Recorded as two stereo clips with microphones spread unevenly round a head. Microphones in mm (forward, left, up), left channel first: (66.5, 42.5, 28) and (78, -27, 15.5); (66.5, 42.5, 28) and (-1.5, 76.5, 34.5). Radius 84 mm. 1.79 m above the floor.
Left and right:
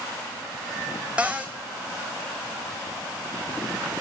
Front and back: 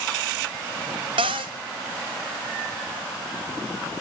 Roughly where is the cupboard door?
Behind.